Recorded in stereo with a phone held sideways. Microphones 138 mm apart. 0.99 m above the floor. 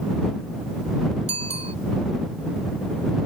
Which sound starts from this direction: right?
A bicycle bell, at 1.3 s.